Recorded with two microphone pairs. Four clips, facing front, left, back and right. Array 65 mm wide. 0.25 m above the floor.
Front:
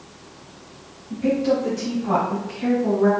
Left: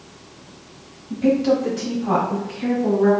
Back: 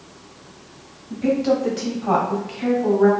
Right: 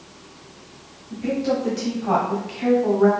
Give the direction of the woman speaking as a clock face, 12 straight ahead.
8 o'clock.